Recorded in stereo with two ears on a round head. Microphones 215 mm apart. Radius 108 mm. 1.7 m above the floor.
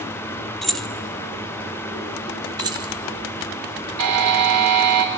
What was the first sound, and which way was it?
Keys jangling, centre (ahead or behind).